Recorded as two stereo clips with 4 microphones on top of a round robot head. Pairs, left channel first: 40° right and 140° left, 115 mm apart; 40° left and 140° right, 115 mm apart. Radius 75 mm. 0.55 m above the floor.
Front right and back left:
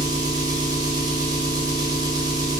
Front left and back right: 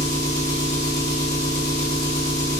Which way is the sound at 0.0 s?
95° left.